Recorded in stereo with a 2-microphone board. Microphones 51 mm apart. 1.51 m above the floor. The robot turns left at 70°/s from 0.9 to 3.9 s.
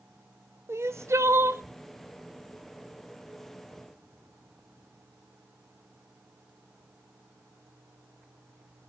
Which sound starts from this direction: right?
Crying, at 0.7 s.